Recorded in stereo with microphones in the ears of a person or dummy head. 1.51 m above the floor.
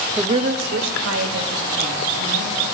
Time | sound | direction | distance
0.2 | a woman speaking | 10° right (ahead or behind) | 0.6 m